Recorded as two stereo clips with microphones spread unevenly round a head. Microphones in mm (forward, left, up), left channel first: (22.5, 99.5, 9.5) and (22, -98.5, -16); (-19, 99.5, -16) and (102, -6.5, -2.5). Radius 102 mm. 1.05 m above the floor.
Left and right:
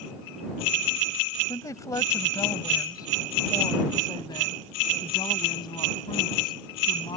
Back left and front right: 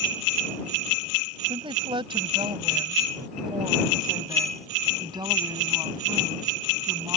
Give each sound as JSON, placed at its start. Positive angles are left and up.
{"t": 1.5, "sound": "a woman speaking", "azimuth_deg": 15}